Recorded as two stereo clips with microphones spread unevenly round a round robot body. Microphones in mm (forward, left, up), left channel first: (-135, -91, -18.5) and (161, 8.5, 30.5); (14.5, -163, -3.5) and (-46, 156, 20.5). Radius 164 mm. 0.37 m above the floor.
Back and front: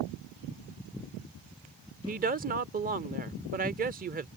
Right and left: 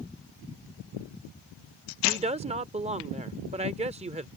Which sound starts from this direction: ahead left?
A woman speaking, at 2.1 s.